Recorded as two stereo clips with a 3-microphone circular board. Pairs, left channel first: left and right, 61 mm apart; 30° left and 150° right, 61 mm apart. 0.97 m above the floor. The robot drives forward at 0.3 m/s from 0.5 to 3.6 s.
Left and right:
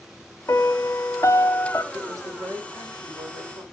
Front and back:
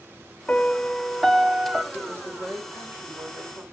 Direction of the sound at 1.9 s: 95° right.